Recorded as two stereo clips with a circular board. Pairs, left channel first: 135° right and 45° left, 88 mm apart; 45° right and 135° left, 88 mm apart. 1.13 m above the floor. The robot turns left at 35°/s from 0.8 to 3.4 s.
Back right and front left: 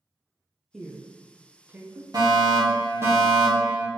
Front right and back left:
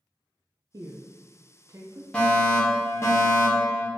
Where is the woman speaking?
135° left, 0.6 m; by 2.0 s 90° left, 0.6 m.